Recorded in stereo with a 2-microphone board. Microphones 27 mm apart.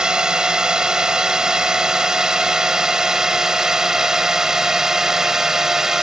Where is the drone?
30° right (ahead or behind); by 6.0 s 20° right (ahead or behind).